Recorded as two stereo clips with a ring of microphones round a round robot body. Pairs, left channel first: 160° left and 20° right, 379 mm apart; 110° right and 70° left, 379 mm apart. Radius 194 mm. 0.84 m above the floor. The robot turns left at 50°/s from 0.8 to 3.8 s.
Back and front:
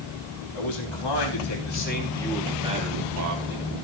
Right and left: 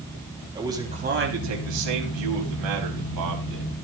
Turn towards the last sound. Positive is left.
turn(degrees=0)